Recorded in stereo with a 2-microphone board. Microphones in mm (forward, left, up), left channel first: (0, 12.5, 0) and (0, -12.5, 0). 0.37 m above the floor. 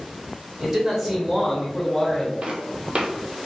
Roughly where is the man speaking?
Right.